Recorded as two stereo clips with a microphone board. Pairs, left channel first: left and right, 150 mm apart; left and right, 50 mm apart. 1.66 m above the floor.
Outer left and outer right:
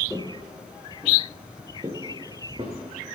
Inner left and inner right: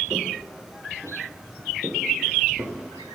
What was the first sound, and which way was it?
Footsteps, centre (ahead or behind).